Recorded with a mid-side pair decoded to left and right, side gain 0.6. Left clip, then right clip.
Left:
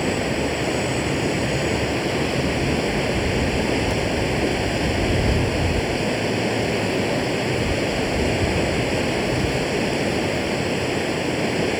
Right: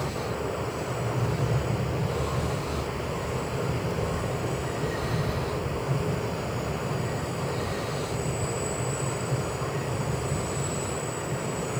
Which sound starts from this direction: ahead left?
Running water, at 0.0 s.